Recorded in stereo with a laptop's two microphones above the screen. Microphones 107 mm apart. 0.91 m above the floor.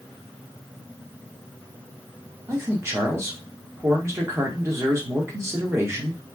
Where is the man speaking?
25° right (ahead or behind), 1.0 m.